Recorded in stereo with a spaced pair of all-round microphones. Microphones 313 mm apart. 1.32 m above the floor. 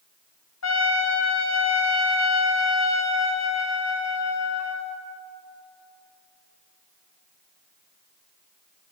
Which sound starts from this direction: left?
A trumpet, at 0.6 s.